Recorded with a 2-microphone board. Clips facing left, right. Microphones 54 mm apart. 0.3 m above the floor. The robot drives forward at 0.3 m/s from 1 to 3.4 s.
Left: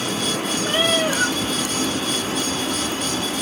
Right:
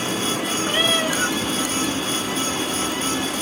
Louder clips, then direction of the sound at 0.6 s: Left 2 dB; 50° left (ahead or behind).